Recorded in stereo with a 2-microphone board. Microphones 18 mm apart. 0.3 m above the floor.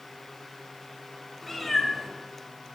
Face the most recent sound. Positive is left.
turn(degrees=5)  # may be behind; listen again after turning